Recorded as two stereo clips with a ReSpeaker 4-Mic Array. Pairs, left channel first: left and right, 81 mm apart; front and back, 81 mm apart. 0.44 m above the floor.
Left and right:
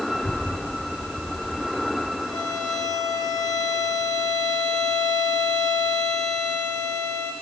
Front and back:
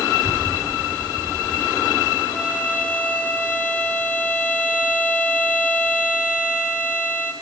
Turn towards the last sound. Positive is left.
turn(degrees=110)